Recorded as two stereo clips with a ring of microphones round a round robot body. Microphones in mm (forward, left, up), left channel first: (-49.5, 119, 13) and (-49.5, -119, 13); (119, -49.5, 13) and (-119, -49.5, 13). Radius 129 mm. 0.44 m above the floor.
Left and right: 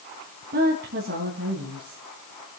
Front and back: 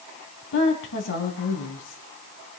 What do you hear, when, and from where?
0.5 s a woman speaking: 35° right, 3.5 m